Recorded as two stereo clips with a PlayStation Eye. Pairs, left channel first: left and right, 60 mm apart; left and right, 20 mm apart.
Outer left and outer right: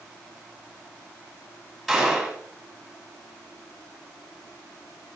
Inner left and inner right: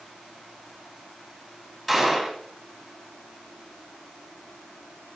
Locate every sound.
1.9 s a gunshot: centre (ahead or behind), 4 m